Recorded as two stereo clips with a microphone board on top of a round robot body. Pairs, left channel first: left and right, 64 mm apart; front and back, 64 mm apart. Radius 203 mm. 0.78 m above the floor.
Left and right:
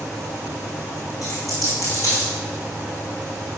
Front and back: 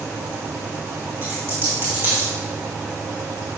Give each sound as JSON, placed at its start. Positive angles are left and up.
{"t": 1.2, "sound": "a dropped coin", "azimuth_deg": 125, "distance_m": 1.2}